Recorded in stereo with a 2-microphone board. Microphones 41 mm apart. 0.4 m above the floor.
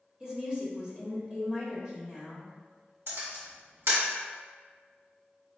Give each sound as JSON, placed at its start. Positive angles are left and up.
{"t": 0.2, "sound": "a woman speaking", "side_deg": -20, "distance_m": 1.2}
{"t": 3.1, "sound": "a camera shutter", "side_deg": -75, "distance_m": 1.6}